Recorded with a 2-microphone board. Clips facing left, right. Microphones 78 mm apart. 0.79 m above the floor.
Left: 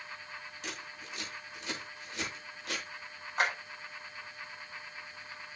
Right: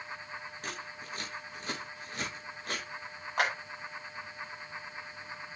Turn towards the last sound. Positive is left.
turn(degrees=-85)